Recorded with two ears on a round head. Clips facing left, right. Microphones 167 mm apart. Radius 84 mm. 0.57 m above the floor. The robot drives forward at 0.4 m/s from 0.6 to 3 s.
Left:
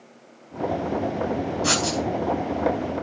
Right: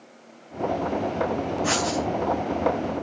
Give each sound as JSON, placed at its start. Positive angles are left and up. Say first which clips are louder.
{"t": 1.6, "sound": "writing", "louder": "even", "side_deg": 50, "distance_m": 3.5}